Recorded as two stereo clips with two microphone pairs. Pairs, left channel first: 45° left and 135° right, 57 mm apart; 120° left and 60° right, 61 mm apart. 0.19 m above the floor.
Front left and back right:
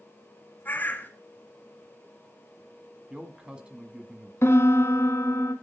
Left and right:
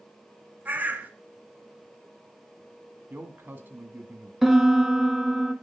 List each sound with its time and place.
0.7 s a bird: 5° right, 1.5 m
3.1 s a man speaking: 80° right, 1.6 m
4.4 s a piano: 25° left, 1.1 m